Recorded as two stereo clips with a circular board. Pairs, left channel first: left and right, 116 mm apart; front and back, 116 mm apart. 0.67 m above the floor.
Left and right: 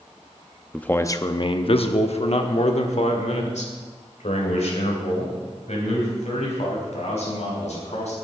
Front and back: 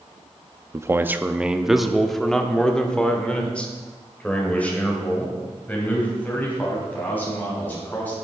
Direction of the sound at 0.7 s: 165° left.